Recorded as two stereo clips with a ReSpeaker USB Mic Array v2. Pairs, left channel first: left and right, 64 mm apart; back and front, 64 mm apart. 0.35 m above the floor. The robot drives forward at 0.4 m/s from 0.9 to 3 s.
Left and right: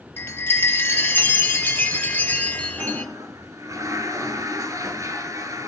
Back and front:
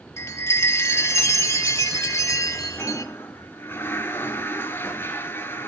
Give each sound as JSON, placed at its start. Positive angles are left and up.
{"t": 0.2, "sound": "a chime", "azimuth_deg": 145, "distance_m": 1.6}
{"t": 2.8, "sound": "a toilet flushing", "azimuth_deg": -120, "distance_m": 2.0}